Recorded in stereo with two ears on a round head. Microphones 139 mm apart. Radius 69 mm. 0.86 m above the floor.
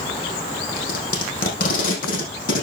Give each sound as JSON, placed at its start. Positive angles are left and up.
{"t": 0.8, "sound": "tape being pulled", "side_deg": 60, "distance_m": 5.5}